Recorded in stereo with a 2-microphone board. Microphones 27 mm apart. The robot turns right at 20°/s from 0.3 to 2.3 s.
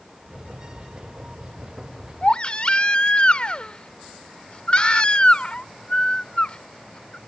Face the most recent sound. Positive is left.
turn(degrees=40)  # may be behind; listen again after turning